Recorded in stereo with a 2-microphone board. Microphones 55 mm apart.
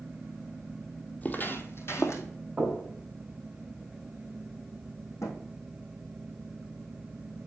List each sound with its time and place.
1.2 s footsteps: 30° left (ahead or behind), 0.9 m; by 2.2 s 60° left (ahead or behind), 1.4 m
2.6 s knocking: 15° right (ahead or behind), 4 m
5.2 s a thud: 65° left (ahead or behind), 2.5 m